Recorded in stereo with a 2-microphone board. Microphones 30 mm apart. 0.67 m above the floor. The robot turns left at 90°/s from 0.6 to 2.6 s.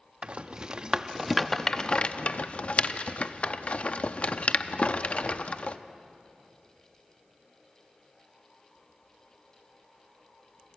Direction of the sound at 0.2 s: 40° right (ahead or behind).